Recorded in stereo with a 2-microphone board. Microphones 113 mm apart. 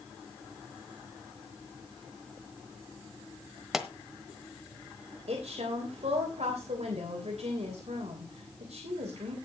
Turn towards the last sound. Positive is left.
turn(degrees=-80)